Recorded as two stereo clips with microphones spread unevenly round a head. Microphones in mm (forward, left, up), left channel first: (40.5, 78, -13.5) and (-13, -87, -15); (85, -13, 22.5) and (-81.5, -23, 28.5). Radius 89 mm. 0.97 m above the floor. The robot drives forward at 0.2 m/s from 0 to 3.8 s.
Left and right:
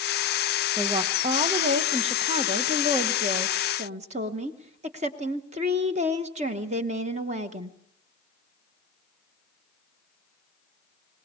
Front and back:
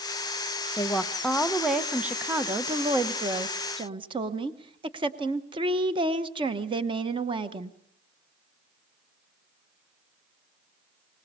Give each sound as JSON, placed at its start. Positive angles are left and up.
{"t": 0.8, "sound": "a woman speaking", "azimuth_deg": -65, "distance_m": 0.9}